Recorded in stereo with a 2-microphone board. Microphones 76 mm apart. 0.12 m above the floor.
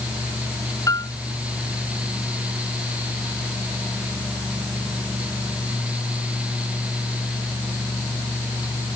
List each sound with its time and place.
0.9 s a piano: 45° left (ahead or behind)